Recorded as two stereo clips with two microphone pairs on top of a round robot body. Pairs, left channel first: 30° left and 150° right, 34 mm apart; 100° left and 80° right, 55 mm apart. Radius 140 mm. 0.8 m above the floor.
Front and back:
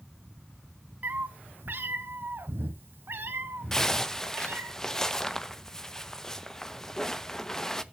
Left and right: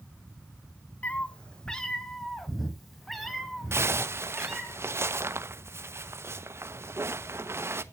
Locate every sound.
1.0 s a cat meowing: 165° left, 0.9 m; by 4.7 s 170° right, 3.5 m
3.7 s a zipper: 50° right, 1.3 m